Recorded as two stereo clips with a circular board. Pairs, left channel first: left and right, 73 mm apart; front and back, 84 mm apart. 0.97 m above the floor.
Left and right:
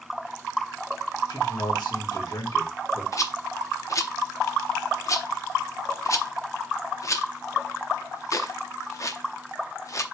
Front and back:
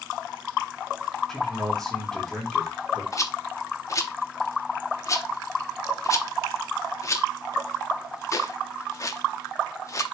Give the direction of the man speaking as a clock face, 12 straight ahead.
9 o'clock.